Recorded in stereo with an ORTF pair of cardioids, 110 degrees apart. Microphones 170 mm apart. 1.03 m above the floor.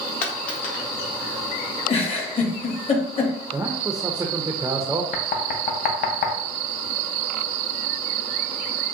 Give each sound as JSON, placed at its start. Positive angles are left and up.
{"t": 0.2, "sound": "a dropped coin", "azimuth_deg": 60, "distance_m": 1.5}
{"t": 1.9, "sound": "a giggle", "azimuth_deg": 35, "distance_m": 1.2}
{"t": 3.5, "sound": "a man speaking", "azimuth_deg": -15, "distance_m": 0.5}
{"t": 5.1, "sound": "knocking", "azimuth_deg": 60, "distance_m": 0.8}